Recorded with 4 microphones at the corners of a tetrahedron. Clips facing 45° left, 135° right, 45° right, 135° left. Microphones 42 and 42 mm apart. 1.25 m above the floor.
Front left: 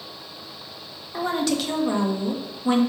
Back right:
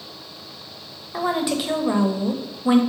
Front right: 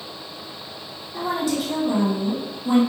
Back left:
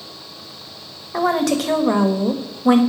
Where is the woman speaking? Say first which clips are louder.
Back right 1 dB, back left 6 dB; 150° left, 1.0 m.